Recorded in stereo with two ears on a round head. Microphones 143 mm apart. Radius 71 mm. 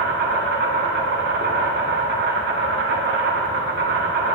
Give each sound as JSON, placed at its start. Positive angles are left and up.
{"t": 0.0, "sound": "an insect", "side_deg": -65, "distance_m": 3.0}